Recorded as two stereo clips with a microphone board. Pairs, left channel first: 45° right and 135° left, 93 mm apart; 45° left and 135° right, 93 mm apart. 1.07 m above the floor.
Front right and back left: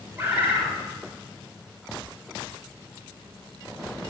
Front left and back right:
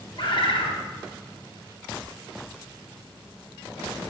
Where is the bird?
70° left, 3 m.